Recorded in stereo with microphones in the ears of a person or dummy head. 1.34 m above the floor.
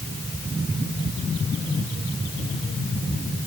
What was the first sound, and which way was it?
Only background noise.